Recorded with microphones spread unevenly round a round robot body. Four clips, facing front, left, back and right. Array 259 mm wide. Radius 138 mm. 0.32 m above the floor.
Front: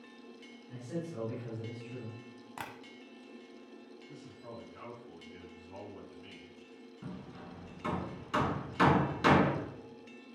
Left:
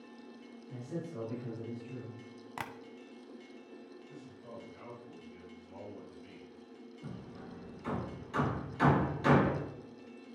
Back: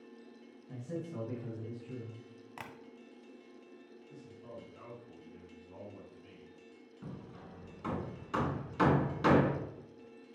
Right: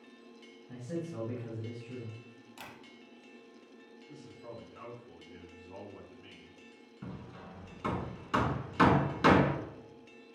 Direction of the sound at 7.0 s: 75° right.